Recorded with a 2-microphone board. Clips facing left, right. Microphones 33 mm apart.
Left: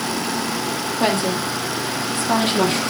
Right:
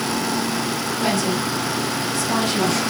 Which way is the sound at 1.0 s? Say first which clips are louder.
Left 2 dB; 40° left (ahead or behind).